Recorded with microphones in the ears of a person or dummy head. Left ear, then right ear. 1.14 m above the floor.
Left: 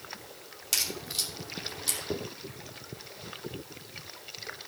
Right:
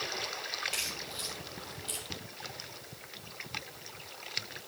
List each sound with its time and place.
0.7 s a crack: 90° left, 2.5 m